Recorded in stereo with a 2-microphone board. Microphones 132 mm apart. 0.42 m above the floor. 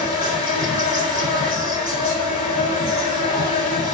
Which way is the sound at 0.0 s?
50° left (ahead or behind).